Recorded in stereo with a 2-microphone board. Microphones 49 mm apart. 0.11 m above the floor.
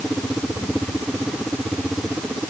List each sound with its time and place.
Only background noise.